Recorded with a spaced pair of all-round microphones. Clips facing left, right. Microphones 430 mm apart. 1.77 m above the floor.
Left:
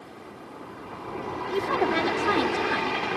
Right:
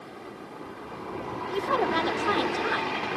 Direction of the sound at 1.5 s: 40° left (ahead or behind).